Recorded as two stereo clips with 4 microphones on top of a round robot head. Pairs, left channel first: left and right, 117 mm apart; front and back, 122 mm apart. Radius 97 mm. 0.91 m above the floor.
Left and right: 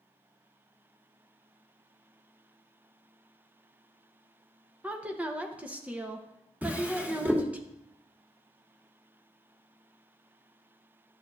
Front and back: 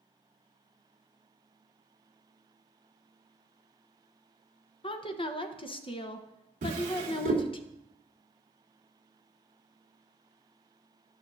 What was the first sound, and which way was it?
A woman speaking, 15° right.